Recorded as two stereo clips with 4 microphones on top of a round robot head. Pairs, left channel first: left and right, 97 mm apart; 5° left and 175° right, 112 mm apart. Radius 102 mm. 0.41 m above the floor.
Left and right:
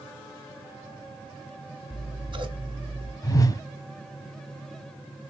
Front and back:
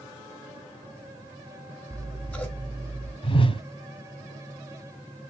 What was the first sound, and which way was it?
Scissors, 75° right.